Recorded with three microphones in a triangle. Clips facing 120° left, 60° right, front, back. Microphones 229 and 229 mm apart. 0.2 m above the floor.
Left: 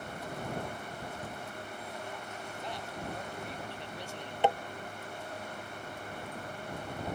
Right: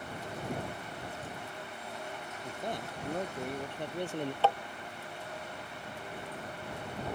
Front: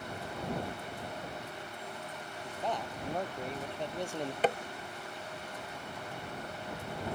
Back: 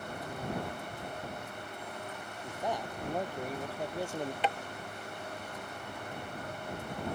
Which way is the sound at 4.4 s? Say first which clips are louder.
Left 2 dB, front 6 dB; 50° left.